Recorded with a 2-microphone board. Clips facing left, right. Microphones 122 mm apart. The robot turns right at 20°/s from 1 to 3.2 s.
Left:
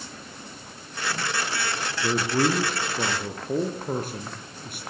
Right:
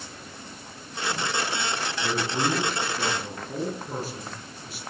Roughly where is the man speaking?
Left.